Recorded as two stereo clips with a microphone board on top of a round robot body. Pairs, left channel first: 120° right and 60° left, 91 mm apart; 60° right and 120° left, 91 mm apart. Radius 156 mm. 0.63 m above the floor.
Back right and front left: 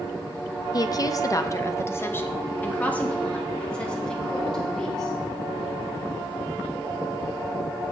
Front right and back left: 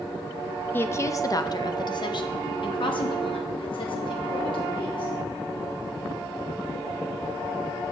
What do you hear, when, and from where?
0.7 s a woman speaking: 115° right, 0.9 m; by 5.1 s 35° right, 2.5 m